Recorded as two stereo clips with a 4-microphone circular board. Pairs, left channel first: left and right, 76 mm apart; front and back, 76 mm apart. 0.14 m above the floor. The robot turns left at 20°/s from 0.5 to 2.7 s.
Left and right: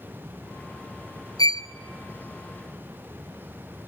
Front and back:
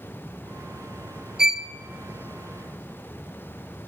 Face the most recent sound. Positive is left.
turn(degrees=75)